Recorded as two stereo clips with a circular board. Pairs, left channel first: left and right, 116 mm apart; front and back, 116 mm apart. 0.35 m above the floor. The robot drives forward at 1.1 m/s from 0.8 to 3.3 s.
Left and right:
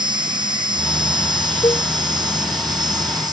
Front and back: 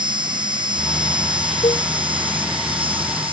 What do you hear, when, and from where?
0.0 s an insect: 135° right; by 3.3 s 140° right
1.6 s a cowbell: 35° left